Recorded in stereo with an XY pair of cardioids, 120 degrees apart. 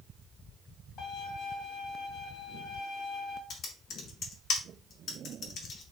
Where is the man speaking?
No man speaking in this recording.